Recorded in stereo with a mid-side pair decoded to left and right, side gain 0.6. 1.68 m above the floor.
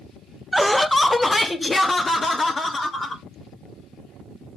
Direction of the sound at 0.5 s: 5° right.